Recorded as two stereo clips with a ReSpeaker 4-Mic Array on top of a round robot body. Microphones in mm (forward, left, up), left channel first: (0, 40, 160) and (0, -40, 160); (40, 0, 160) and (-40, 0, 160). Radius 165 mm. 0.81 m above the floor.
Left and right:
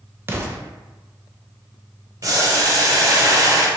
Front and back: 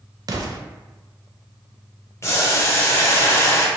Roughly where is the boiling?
Ahead right.